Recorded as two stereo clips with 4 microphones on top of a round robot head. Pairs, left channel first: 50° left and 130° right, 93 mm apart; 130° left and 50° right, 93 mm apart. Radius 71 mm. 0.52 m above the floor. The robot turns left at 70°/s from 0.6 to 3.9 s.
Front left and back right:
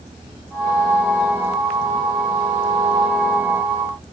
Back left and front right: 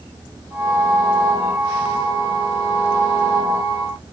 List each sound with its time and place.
Only background noise.